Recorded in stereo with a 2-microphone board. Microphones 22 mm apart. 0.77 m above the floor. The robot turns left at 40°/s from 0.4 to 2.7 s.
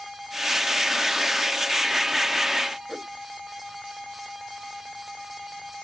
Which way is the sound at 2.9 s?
30° right (ahead or behind).